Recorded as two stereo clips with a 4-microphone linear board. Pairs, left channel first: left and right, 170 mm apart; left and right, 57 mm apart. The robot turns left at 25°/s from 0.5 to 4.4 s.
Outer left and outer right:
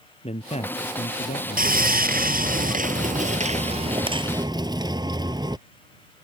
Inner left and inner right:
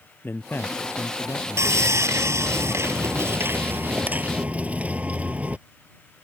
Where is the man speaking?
130° left; by 1.9 s 95° left.